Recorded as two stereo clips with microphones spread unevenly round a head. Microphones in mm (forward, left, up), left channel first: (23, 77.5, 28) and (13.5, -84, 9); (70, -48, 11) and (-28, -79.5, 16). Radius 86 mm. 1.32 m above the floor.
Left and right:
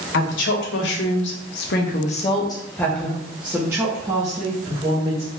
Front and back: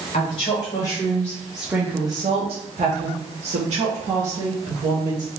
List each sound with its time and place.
0.1 s a woman speaking: 70° left, 1.4 m; by 5.3 s 155° right, 2 m